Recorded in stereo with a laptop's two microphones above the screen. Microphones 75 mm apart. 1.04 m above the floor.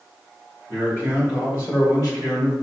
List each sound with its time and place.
0.7 s a man speaking: 25° left (ahead or behind), 1.8 m; by 2.5 s 50° left (ahead or behind), 2.5 m